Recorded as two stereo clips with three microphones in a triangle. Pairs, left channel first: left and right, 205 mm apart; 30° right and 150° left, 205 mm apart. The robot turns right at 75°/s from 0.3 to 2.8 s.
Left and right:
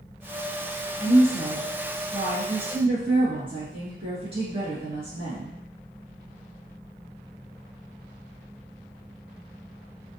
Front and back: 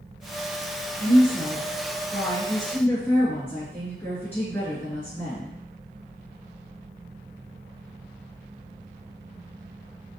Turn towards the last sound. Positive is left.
turn(degrees=-100)